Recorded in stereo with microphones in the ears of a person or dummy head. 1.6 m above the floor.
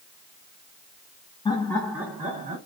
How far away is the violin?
No violin in this recording.